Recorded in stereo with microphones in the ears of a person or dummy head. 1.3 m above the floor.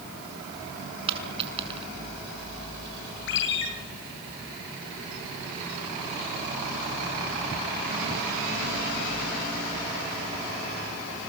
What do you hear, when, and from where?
1.1 s a dropped coin: 35° right (ahead or behind), 6 m
3.3 s a ringtone: 70° left (ahead or behind), 9.5 m